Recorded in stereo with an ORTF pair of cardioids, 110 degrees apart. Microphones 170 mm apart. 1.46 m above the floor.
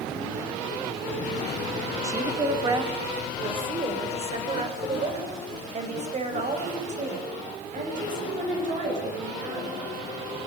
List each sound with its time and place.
2.0 s a woman speaking: 20° right, 4 m; by 9.9 s 50° right, 13 m